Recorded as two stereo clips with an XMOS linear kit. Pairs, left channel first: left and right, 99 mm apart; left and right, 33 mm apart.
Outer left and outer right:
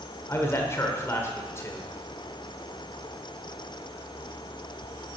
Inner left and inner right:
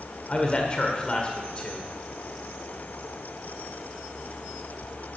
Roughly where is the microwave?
I don't hear a microwave.